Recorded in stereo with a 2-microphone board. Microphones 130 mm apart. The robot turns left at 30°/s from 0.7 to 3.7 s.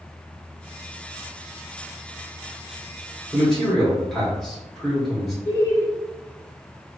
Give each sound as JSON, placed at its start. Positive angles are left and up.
{"t": 3.3, "sound": "a man speaking", "side_deg": 0, "distance_m": 1.2}
{"t": 5.5, "sound": "laughter", "side_deg": 25, "distance_m": 1.4}